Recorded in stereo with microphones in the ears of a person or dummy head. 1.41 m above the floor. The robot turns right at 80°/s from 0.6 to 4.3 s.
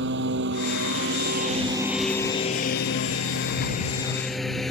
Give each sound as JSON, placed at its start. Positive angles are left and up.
{"t": 0.0, "sound": "a lawn mower", "side_deg": -65}